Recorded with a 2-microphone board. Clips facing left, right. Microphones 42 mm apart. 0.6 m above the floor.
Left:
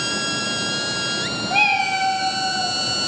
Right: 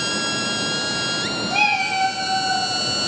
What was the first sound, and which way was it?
A cat meowing, 20° left (ahead or behind).